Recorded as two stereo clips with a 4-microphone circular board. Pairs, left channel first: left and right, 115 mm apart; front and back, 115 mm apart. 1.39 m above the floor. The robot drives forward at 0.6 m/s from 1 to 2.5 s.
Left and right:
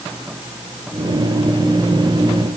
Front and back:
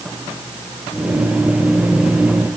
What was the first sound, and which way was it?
Only background noise.